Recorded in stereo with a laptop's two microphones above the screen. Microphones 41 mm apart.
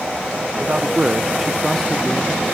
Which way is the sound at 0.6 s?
30° right (ahead or behind).